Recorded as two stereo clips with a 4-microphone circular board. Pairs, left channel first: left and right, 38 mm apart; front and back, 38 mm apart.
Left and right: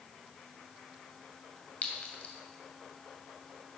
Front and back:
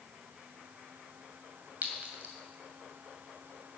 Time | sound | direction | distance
1.8 | a clink | 140° left | 2.5 m